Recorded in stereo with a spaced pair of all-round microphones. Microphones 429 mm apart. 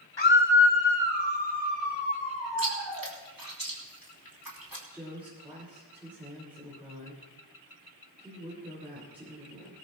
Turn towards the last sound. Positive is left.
turn(degrees=-5)  # may be behind; listen again after turning